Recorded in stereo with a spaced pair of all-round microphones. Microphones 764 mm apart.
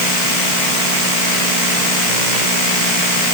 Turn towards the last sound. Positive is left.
No sound to turn to.